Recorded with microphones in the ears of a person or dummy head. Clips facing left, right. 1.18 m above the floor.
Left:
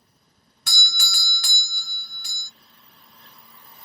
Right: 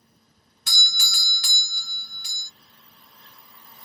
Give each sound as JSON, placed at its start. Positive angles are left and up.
{"t": 0.7, "sound": "a doorbell", "side_deg": 40, "distance_m": 0.6}